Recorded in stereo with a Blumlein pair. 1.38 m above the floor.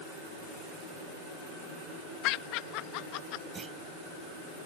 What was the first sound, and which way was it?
Laughter, 40° left.